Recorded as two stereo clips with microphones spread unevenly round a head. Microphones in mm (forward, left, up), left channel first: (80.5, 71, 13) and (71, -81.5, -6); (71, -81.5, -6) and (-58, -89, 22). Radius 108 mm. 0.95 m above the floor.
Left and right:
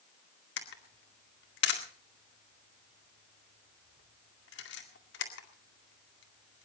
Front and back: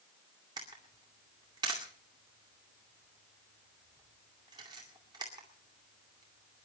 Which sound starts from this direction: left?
A camera shutter, at 0.6 s.